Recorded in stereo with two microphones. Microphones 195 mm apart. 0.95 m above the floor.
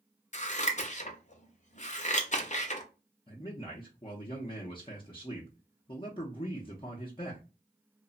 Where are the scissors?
40° left (ahead or behind), 0.5 m.